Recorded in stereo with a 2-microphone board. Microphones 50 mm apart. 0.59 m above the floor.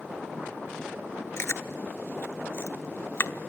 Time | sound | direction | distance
1.4 | chewing | 55° left (ahead or behind) | 0.9 m